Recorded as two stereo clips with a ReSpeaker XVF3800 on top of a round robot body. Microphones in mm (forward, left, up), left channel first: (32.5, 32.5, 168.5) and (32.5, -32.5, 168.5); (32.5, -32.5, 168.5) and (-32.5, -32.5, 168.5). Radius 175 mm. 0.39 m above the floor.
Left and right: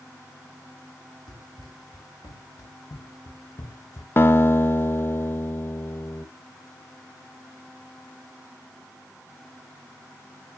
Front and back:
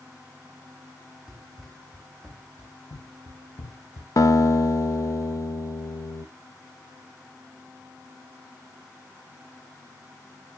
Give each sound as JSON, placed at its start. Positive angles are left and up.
{"t": 1.3, "sound": "running footsteps", "azimuth_deg": 75, "distance_m": 5.5}
{"t": 4.2, "sound": "a guitar", "azimuth_deg": 35, "distance_m": 1.2}